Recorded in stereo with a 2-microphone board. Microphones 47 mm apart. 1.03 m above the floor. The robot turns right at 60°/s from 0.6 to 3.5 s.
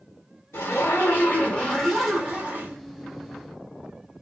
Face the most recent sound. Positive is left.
turn(degrees=-90)